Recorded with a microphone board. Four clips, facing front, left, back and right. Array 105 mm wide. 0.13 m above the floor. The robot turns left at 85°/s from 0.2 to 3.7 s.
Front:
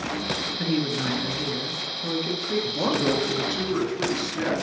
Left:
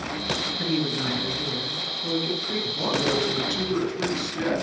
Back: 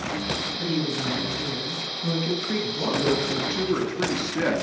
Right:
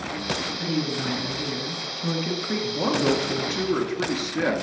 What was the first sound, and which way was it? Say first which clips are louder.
A woman speaking: left 1 dB, front 2 dB; 40° left.